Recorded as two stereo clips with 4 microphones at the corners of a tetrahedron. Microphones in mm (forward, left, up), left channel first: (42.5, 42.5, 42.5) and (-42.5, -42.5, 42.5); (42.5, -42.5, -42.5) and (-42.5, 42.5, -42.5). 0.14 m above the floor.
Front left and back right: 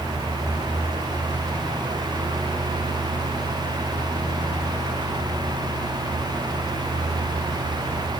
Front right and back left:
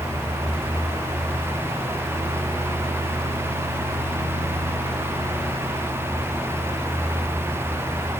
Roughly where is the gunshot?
I don't hear a gunshot.